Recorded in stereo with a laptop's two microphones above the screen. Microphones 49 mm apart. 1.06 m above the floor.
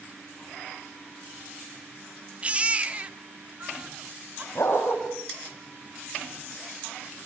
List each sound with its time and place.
2.4 s a baby crying: 25° right (ahead or behind), 1.0 m
4.5 s a dog barking: 65° left (ahead or behind), 9 m